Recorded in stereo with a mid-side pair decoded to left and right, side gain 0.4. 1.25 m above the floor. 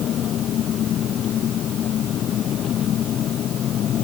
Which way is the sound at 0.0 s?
70° left.